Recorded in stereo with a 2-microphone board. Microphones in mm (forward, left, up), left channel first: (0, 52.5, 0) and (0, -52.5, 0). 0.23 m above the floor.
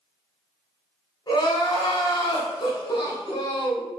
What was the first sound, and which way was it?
Crying, 45° left (ahead or behind).